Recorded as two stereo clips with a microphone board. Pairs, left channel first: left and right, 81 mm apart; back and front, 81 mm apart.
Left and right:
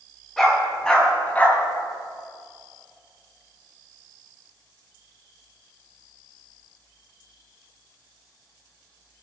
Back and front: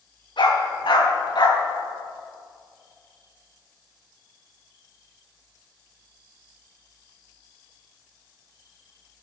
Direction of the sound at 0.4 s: Straight behind.